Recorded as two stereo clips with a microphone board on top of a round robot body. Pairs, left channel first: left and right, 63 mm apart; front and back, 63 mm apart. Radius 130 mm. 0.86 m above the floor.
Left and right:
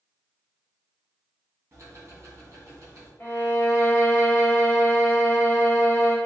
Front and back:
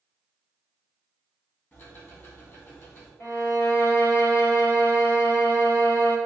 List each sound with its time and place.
1.7 s ticking: 45° right, 1.5 m
3.2 s a violin: 40° left, 1.8 m